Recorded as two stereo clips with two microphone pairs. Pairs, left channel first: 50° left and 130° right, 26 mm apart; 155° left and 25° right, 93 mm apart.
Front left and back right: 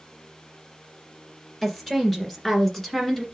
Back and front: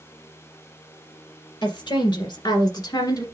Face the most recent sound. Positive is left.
turn(degrees=125)